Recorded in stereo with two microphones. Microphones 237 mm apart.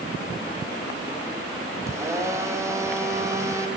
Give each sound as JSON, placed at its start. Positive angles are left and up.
{"t": 1.9, "sound": "a blender", "side_deg": -10, "distance_m": 4.5}